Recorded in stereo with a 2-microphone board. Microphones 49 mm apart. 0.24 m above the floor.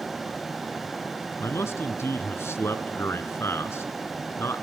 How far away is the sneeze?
No sneeze in this recording.